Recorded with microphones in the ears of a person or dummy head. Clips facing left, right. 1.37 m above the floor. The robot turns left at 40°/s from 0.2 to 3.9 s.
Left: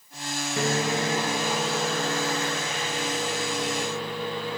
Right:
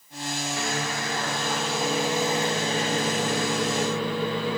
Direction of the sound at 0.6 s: 50° left.